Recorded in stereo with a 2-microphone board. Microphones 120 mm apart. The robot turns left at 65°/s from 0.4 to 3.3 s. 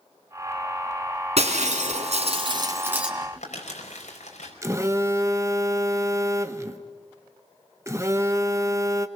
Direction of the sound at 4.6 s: 25° right (ahead or behind).